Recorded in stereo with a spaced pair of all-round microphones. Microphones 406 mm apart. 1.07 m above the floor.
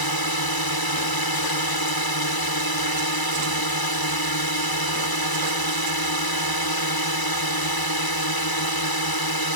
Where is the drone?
60° left (ahead or behind).